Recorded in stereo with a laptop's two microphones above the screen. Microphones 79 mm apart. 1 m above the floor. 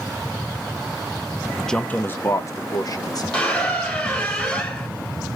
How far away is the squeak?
About 2 m.